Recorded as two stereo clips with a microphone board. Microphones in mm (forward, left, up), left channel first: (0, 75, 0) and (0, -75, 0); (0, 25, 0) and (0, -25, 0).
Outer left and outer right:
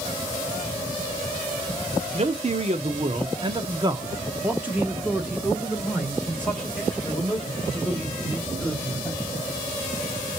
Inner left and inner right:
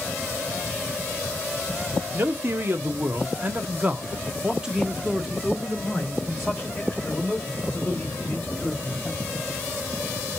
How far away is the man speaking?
About 1.2 m.